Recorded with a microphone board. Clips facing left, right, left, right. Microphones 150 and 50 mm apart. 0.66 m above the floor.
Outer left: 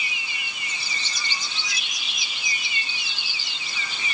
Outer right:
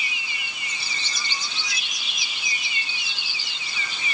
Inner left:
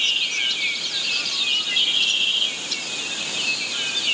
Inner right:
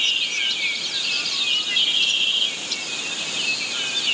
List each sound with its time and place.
Only background noise.